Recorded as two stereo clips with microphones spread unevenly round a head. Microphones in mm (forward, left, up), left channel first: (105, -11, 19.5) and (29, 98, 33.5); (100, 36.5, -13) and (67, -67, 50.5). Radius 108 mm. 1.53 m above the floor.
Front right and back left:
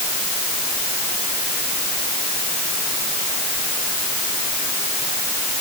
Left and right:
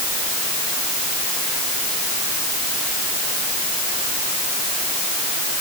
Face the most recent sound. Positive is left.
No sound to turn to.